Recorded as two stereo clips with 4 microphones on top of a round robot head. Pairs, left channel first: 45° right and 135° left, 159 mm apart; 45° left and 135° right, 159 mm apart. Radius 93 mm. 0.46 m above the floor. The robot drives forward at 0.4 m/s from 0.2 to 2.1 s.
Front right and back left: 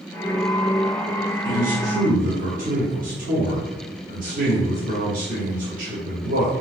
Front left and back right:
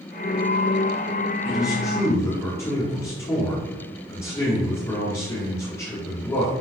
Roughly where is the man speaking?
Left.